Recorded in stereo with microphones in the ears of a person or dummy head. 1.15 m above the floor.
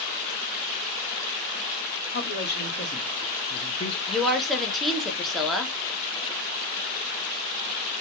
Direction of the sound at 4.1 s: 5° left (ahead or behind).